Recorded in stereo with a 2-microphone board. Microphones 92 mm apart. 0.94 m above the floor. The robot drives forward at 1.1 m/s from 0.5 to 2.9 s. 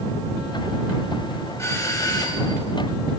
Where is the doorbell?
30° left (ahead or behind), 2 m; by 2.6 s 50° left (ahead or behind), 1.5 m.